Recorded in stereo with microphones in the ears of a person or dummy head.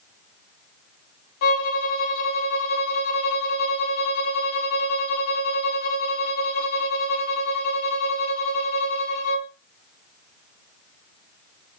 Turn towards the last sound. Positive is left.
turn(degrees=60)  # may be behind; listen again after turning